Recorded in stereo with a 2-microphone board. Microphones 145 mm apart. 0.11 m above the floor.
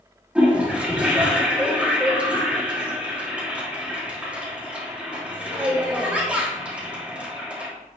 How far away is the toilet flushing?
About 3 m.